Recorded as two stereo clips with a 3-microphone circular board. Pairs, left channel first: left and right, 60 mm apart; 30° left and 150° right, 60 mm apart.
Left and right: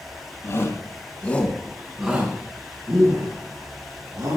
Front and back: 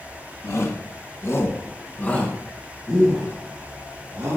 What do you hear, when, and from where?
0.4 s a shout: 60° left, 2.5 m; by 4.4 s 75° right, 4.5 m